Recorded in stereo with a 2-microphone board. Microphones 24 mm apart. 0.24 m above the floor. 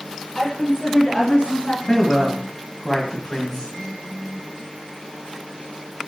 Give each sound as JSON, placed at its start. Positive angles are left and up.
{"t": 0.3, "sound": "a woman speaking", "side_deg": 0, "distance_m": 2.5}
{"t": 1.9, "sound": "a man speaking", "side_deg": 10, "distance_m": 1.8}